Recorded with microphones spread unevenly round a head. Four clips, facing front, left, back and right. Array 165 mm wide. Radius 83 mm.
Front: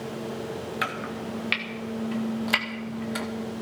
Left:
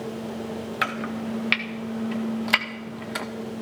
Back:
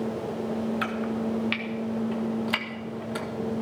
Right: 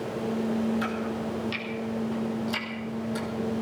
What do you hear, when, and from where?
0.8 s chopping: 60° left, 1.9 m